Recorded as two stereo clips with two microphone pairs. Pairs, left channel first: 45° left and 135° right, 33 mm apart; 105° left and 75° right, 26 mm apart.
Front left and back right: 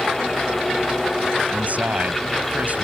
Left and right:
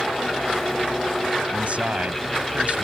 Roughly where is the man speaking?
Right.